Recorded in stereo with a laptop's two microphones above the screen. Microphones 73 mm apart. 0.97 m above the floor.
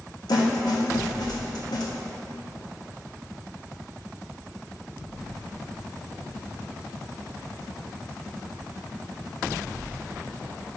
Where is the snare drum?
65° left (ahead or behind), 1.2 m.